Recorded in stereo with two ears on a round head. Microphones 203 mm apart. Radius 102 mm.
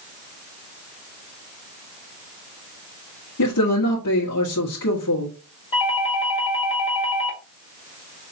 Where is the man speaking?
75° left (ahead or behind), 1.4 m.